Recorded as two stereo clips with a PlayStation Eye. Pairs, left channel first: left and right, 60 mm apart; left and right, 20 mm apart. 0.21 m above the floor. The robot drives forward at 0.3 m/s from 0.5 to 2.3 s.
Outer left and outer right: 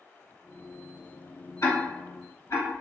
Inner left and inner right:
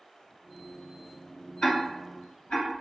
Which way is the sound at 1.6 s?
60° left (ahead or behind).